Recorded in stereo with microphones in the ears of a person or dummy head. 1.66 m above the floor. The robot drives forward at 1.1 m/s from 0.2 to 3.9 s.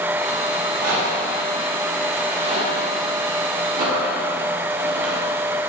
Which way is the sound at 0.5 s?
55° right (ahead or behind).